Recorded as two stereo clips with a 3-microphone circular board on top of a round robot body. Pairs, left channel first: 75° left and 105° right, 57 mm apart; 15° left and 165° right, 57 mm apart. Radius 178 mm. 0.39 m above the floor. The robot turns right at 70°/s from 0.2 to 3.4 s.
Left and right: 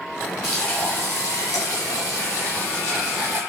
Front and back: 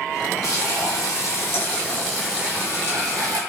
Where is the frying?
15° right, 0.9 m; by 3.4 s 165° right, 0.9 m.